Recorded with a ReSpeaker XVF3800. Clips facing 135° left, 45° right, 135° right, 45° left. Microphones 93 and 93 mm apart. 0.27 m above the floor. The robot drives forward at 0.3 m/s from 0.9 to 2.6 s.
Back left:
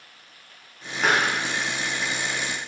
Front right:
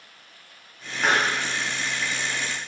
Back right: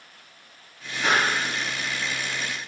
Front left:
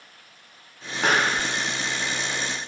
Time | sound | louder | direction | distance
1.0 | a pop | even, front left 1 dB | 50° left | 0.8 m